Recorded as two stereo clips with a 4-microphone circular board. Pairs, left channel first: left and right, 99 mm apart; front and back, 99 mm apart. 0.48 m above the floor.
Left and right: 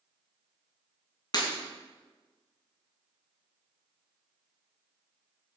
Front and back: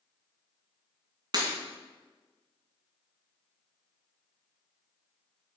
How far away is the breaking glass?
About 2.5 m.